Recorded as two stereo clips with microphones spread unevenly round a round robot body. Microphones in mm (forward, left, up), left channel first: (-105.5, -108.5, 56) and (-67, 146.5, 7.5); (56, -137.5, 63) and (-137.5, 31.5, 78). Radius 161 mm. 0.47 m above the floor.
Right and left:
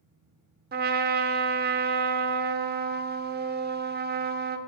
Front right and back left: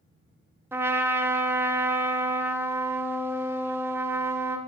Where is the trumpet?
55° left, 0.7 m.